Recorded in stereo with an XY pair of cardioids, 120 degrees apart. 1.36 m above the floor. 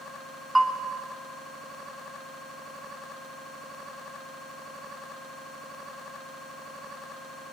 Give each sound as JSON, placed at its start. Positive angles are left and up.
{"t": 0.6, "sound": "a bell", "azimuth_deg": -15, "distance_m": 1.3}